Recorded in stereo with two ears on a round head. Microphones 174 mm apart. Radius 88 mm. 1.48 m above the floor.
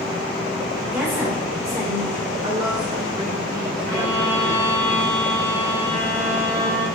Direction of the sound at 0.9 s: Centre (ahead or behind).